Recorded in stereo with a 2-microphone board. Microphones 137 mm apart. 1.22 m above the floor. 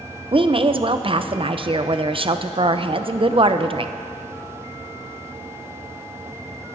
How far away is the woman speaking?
About 0.5 m.